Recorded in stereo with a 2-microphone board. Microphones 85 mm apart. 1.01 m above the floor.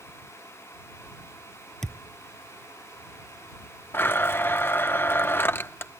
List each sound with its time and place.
1.8 s a thud: 5° left (ahead or behind)
3.9 s a blender: 25° left (ahead or behind)